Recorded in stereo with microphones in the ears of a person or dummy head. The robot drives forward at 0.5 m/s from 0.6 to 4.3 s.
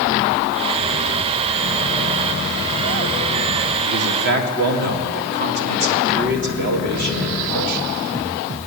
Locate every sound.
3.9 s a man speaking: 60° right (ahead or behind), 1.7 m; by 8.0 s 55° right (ahead or behind), 1.8 m